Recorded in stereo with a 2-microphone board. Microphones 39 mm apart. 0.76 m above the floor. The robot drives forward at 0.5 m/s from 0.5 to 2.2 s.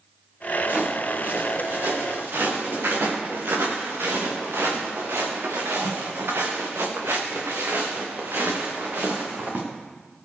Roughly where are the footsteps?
Right.